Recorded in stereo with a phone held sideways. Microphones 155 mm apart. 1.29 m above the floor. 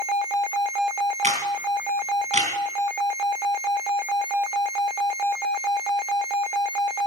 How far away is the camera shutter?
About 3.5 m.